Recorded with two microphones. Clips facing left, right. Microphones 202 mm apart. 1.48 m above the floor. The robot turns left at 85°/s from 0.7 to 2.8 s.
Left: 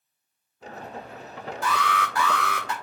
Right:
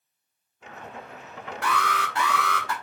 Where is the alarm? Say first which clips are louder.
Left 1 dB; 110° right, 0.8 m; by 2.7 s 155° left, 0.8 m.